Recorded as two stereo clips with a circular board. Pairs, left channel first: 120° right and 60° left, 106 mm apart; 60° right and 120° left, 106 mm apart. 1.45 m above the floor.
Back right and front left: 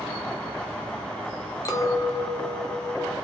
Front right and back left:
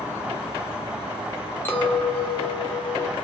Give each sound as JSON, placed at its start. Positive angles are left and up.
{"t": 1.6, "sound": "a clink", "azimuth_deg": -110, "distance_m": 0.5}